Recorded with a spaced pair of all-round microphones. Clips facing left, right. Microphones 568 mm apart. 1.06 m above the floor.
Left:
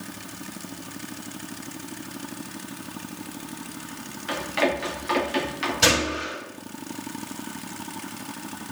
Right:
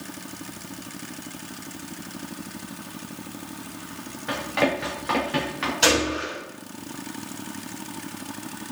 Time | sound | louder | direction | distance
4.3 | running footsteps | right 1 dB | 65° right (ahead or behind) | 7 m
5.8 | a gunshot | right 2 dB | 50° left (ahead or behind) | 6.5 m